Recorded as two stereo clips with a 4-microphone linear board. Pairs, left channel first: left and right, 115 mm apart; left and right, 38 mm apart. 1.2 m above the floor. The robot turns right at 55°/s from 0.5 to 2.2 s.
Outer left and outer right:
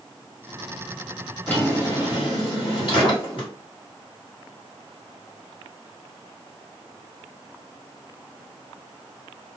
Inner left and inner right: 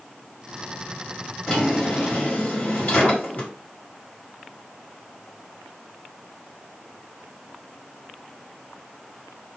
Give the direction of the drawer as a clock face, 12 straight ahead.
12 o'clock.